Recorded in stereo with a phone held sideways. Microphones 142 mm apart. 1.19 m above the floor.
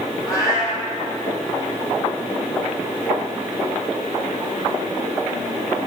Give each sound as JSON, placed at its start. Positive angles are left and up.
{"t": 0.3, "sound": "a cat meowing", "side_deg": 25, "distance_m": 3.0}